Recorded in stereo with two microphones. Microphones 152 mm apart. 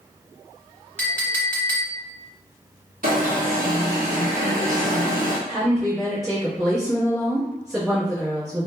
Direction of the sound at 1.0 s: 10° left (ahead or behind).